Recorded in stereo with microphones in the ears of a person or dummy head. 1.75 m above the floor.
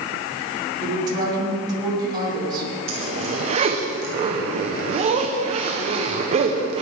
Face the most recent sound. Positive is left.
turn(degrees=-35)  # may be behind; listen again after turning